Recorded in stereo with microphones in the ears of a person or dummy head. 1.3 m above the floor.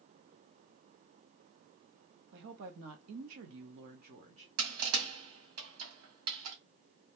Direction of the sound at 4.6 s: 90° right.